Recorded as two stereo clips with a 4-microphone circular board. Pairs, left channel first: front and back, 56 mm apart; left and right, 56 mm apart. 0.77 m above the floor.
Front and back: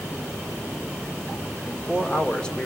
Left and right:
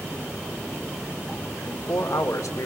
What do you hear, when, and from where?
1.6 s a man speaking: 70° left, 1.5 m; by 2.7 s 75° left, 2 m